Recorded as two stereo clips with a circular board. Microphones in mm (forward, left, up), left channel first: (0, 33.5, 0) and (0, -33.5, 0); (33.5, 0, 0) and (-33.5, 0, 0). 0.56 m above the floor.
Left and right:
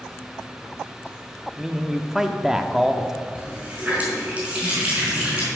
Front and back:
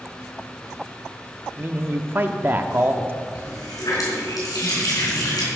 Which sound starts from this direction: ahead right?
A running tap, at 3.4 s.